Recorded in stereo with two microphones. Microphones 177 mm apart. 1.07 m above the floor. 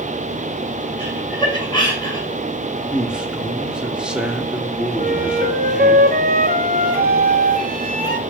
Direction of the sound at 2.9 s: 5° right (ahead or behind).